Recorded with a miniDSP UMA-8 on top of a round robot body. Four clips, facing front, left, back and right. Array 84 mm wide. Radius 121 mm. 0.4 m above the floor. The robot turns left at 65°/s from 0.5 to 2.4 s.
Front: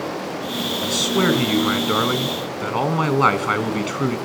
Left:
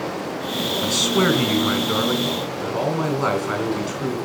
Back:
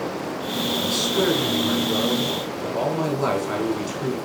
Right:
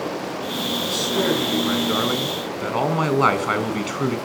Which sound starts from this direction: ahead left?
A man speaking, at 0.8 s.